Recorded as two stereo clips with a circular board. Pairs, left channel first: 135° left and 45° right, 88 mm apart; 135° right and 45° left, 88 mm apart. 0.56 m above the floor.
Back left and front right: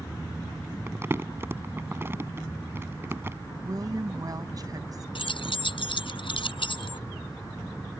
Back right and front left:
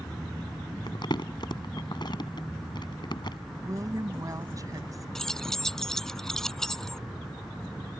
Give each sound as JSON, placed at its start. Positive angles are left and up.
{"t": 0.9, "sound": "crumpling", "azimuth_deg": -110}
{"t": 3.6, "sound": "a woman speaking", "azimuth_deg": -5}
{"t": 5.2, "sound": "keys jangling", "azimuth_deg": 140}